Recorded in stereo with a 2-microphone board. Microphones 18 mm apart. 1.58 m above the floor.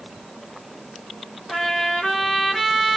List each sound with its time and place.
1.5 s a trumpet: 35° left (ahead or behind), 3 m